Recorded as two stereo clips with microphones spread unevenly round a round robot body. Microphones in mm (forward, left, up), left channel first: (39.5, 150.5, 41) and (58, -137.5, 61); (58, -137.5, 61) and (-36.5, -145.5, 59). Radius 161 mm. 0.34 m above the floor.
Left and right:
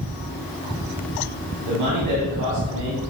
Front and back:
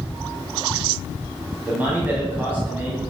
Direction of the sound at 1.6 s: 105° right.